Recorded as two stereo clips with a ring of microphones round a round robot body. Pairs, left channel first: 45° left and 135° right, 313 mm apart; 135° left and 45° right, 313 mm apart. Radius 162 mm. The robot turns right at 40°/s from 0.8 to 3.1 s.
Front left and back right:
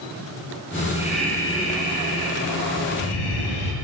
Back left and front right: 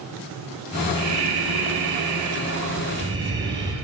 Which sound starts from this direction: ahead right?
Breathing, at 0.9 s.